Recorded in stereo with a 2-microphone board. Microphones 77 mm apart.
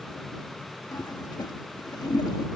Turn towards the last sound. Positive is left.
turn(degrees=60)  # may be behind; listen again after turning